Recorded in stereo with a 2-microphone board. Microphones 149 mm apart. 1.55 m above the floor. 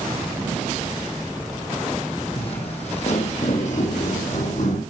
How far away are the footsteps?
About 3.5 m.